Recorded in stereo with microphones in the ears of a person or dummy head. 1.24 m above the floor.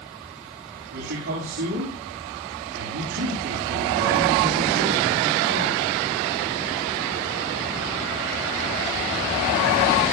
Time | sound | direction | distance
0.9 | a man speaking | 60° right (ahead or behind) | 6.5 m